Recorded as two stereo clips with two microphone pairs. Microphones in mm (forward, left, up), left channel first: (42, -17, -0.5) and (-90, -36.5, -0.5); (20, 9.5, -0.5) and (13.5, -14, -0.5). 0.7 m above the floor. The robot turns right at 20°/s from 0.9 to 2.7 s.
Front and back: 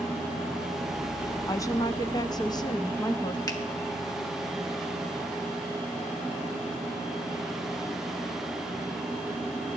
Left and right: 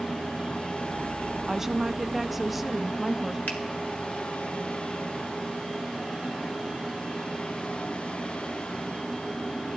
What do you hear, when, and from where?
1.5 s a woman speaking: 35° right, 0.6 m; by 3.4 s 10° right, 0.6 m
3.5 s a finger snap: 70° left, 1.7 m